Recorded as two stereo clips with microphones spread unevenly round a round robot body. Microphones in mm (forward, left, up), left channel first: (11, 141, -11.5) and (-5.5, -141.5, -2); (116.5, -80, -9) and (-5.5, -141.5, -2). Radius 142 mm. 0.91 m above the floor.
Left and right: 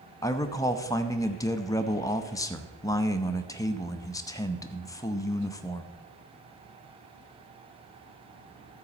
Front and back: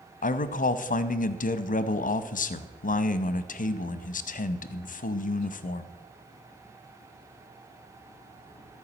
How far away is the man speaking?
About 0.7 m.